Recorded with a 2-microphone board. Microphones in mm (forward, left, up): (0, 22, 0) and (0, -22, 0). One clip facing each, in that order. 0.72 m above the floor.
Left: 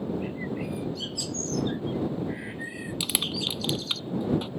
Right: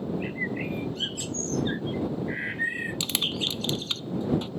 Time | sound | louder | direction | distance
0.2 | a bird | right 2 dB | 40° right (ahead or behind) | ?
3.0 | crushing | left 2 dB | 10° left (ahead or behind) | ?